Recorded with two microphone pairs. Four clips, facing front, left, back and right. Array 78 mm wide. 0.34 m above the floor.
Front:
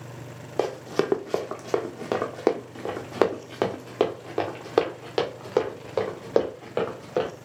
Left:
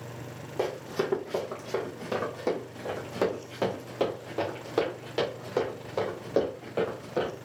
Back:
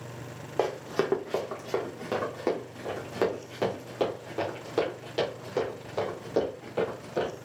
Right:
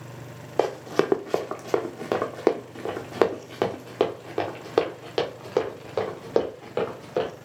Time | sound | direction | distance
0.6 | running footsteps | 90° right | 1.0 m